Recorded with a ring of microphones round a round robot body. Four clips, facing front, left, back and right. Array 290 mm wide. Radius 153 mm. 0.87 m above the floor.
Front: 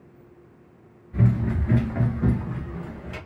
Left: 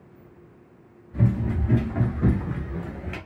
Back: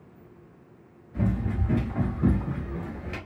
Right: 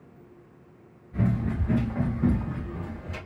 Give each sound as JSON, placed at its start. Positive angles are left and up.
{"t": 1.1, "sound": "running footsteps", "azimuth_deg": -20, "distance_m": 1.0}